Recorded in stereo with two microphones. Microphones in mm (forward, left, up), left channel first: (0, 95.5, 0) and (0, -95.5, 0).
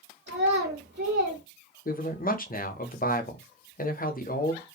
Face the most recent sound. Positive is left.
turn(degrees=50)  # may be behind; listen again after turning